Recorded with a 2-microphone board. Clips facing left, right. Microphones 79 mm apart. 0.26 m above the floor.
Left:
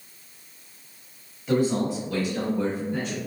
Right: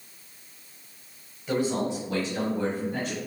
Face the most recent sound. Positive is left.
turn(degrees=-50)  # may be behind; listen again after turning